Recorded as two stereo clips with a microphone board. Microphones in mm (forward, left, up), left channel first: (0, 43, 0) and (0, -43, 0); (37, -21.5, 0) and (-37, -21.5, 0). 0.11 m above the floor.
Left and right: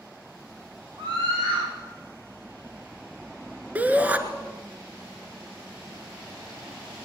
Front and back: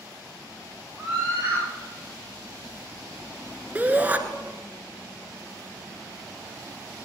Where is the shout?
140° right, 1.3 m.